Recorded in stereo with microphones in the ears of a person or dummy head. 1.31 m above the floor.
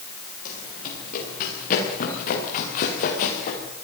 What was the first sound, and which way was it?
Running footsteps, 45° left (ahead or behind).